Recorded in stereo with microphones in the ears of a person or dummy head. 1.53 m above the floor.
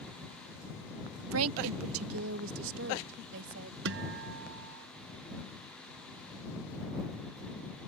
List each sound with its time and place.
1.3 s a woman speaking: 80° right; by 3.8 s 70° right (ahead or behind)
3.9 s a guitar: 65° right (ahead or behind)